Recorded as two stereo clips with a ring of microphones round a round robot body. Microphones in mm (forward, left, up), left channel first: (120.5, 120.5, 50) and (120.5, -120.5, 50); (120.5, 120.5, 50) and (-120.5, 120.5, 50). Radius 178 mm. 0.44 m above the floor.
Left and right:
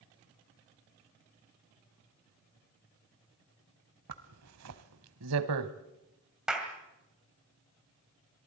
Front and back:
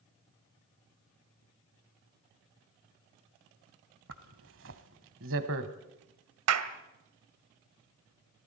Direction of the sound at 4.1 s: 125° right.